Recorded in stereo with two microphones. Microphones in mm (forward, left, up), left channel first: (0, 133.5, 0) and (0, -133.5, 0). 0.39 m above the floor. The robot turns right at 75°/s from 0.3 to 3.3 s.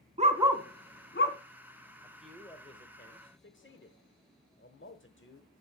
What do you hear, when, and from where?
0.2 s a dog barking: 25° right (ahead or behind), 1.0 m; by 1.4 s 60° left (ahead or behind), 1.0 m
2.0 s a man speaking: 10° right (ahead or behind), 1.0 m; by 5.5 s 45° left (ahead or behind), 1.0 m